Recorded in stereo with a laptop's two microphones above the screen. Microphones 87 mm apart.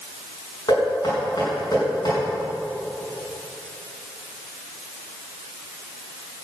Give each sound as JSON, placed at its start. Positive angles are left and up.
{"t": 0.7, "sound": "knocking", "side_deg": 55, "distance_m": 6.0}